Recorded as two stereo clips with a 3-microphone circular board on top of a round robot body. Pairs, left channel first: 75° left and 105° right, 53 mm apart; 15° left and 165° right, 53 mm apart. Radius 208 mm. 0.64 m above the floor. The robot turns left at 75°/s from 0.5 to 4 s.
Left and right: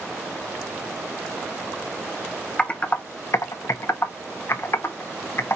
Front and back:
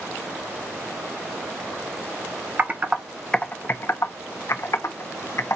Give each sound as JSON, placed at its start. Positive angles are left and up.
{"t": 2.6, "sound": "typing on a keyboard", "azimuth_deg": 145, "distance_m": 1.0}